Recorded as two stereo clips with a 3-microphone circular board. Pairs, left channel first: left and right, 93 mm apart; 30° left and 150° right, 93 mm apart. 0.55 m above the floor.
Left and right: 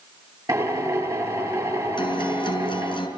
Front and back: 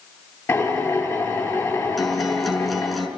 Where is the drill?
40° right, 9.5 m.